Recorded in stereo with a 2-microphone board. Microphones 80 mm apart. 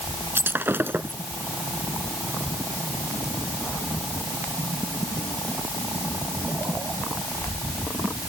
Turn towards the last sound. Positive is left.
turn(degrees=-30)  # may be behind; listen again after turning